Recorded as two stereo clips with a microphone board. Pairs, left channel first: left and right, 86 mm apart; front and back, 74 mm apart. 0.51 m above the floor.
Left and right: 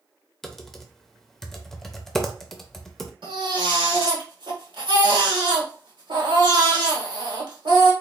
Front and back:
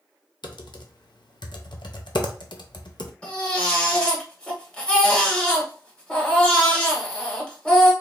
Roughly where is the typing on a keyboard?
Ahead.